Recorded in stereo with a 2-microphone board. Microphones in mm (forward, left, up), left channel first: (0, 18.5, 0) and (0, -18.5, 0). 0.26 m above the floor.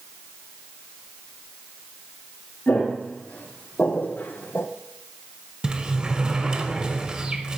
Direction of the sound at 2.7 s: 35° left (ahead or behind).